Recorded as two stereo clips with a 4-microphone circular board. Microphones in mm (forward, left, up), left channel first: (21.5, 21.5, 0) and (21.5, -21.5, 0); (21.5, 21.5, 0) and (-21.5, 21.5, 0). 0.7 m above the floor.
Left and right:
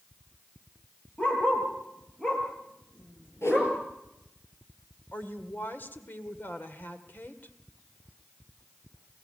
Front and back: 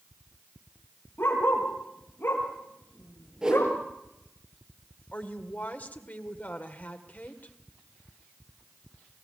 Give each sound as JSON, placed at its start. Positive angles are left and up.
{"t": 1.2, "sound": "a dog barking", "azimuth_deg": 30, "distance_m": 5.5}
{"t": 3.4, "sound": "a whoosh", "azimuth_deg": 105, "distance_m": 7.0}
{"t": 5.1, "sound": "a woman speaking", "azimuth_deg": 50, "distance_m": 2.0}